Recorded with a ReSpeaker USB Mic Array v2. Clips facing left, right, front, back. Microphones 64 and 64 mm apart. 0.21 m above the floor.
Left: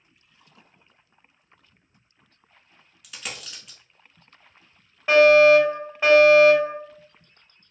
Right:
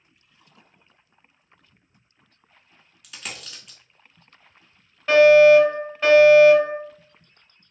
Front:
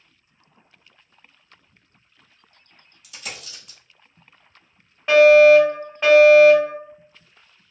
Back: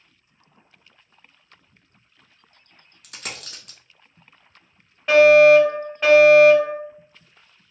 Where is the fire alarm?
90° left, 1.9 m.